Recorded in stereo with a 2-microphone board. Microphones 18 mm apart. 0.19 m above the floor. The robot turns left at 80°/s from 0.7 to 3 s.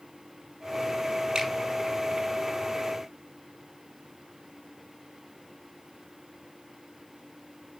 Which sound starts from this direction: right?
A finger snap, at 1.4 s.